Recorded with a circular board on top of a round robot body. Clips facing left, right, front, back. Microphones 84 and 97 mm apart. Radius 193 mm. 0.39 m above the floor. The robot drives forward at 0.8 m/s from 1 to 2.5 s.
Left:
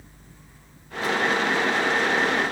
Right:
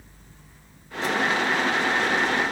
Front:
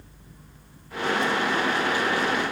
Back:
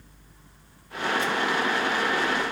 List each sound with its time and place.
Only background noise.